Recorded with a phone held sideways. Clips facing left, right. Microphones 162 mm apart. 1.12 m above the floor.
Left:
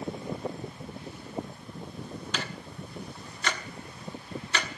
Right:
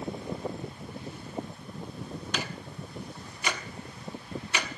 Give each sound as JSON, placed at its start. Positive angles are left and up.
{"t": 2.3, "sound": "ticking", "side_deg": -10, "distance_m": 1.4}